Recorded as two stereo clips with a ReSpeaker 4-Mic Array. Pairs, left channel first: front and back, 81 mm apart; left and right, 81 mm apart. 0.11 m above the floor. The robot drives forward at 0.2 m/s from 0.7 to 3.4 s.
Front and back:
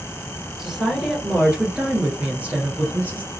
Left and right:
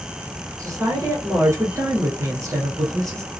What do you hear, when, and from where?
0.6 s a woman speaking: 95° right, 1.6 m; by 3.3 s 120° right, 1.7 m